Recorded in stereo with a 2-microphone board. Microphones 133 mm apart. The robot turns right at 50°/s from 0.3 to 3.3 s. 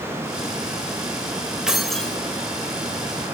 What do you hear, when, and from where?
1.7 s keys jangling: 5° right (ahead or behind), 0.9 m; by 2.2 s 10° left (ahead or behind), 0.9 m